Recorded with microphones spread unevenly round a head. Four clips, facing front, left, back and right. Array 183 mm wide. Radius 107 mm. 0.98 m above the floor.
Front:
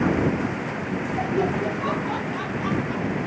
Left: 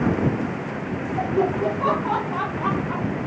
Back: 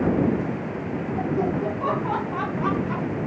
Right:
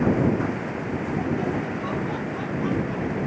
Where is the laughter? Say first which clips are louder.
Left 7 dB, even; 80° left; by 3.2 s 130° left.